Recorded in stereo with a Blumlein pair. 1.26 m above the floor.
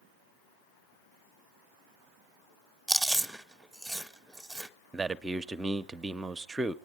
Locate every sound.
2.9 s chewing: 5° right, 0.9 m
4.9 s a man speaking: 15° right, 0.6 m